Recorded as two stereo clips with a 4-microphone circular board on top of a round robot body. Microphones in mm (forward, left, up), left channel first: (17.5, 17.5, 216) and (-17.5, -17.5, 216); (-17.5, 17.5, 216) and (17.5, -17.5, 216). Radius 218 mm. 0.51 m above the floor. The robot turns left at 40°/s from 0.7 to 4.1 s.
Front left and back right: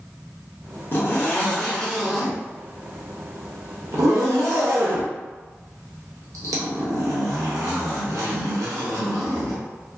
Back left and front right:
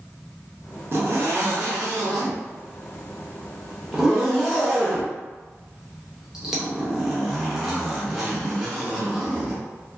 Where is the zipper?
Straight ahead, 0.6 m; by 9.6 s 130° right, 0.6 m.